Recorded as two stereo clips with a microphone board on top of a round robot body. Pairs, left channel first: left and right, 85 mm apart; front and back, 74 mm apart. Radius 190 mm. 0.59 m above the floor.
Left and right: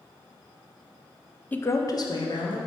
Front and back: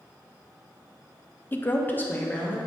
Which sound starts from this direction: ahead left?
A woman speaking, at 1.5 s.